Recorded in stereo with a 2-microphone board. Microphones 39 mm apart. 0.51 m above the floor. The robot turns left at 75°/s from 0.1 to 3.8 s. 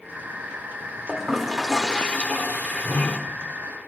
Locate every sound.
1.1 s a toilet flushing: 150° right, 1.4 m; by 3.2 s 50° left, 1.4 m